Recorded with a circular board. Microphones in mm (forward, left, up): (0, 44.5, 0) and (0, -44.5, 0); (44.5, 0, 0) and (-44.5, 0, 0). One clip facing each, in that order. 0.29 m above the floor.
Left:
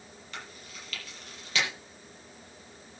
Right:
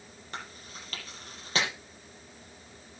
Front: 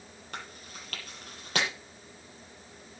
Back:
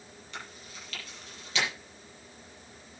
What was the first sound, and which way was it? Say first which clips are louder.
Chewing: right 3 dB, front 2 dB; 40° right.